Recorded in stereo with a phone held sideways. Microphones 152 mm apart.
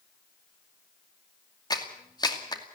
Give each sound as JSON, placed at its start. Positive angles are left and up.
{"t": 1.7, "sound": "a clap", "side_deg": 25, "distance_m": 2.5}